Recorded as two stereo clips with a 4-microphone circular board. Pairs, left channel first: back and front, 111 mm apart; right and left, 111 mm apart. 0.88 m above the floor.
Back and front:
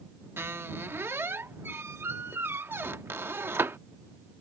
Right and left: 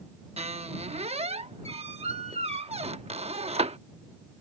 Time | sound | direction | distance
0.4 | a squeak | 70° left | ?